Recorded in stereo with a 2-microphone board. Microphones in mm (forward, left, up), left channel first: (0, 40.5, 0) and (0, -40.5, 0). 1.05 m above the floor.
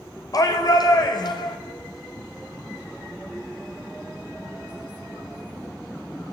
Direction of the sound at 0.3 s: 50° left (ahead or behind).